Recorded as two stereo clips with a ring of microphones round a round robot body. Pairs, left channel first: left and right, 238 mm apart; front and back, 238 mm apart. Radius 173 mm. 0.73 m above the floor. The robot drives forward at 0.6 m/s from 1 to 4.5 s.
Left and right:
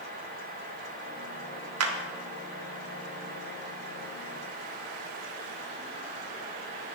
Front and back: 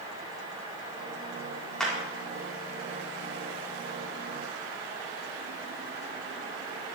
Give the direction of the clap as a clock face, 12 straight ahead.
3 o'clock.